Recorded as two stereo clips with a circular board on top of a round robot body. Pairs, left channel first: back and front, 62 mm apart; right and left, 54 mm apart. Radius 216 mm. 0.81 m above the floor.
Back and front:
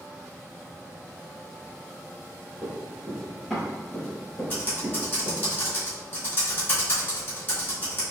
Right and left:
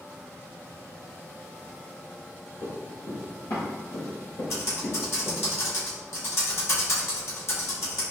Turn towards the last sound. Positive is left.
turn(degrees=-125)